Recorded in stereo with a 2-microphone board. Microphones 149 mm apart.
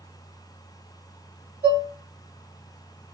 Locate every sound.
1.6 s dishes clattering: 85° right, 1.4 m